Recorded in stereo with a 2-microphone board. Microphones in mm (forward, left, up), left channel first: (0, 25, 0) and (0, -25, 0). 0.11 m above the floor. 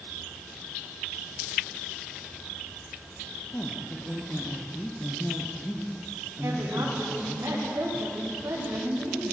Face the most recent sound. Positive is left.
turn(degrees=-75)  # may be behind; listen again after turning